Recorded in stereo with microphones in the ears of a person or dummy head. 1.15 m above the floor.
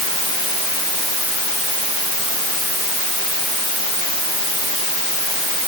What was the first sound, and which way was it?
Only background noise.